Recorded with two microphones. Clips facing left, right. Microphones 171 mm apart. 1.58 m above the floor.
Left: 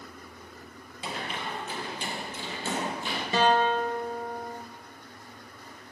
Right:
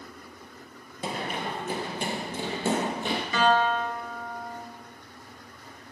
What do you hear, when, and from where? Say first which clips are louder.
1.0 s running footsteps: right 4 dB; 45° right (ahead or behind), 2 m; by 3.2 s 60° right (ahead or behind), 3 m
3.3 s a guitar: left 1 dB; 30° left (ahead or behind), 2 m